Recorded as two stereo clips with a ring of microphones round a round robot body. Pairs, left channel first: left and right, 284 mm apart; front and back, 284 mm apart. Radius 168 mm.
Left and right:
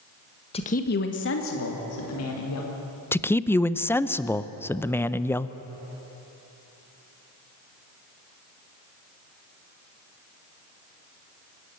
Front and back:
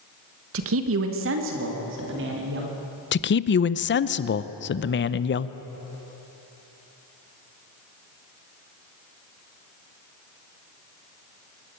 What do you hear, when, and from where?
0.5 s a man speaking: 155° left, 1.2 m; by 2.7 s 125° left, 3.5 m
3.1 s a man speaking: 10° left, 0.6 m